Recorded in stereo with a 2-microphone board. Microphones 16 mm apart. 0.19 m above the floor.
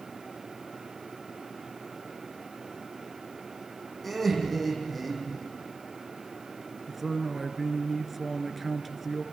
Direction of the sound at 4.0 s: 5° left (ahead or behind).